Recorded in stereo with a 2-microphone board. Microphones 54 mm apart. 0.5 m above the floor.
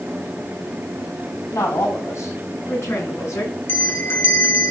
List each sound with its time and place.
1.5 s a woman speaking: 60° left (ahead or behind), 4.5 m; by 3.6 s 50° left (ahead or behind), 7 m
3.7 s a bell: 40° left (ahead or behind), 0.8 m